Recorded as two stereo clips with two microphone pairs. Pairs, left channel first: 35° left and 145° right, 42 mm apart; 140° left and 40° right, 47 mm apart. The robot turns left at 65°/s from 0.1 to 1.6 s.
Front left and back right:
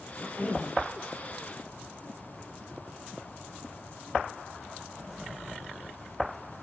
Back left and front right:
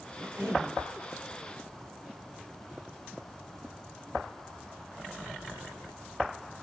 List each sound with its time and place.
0.2 s a cough: straight ahead, 4.5 m; by 0.8 s 40° right, 4.5 m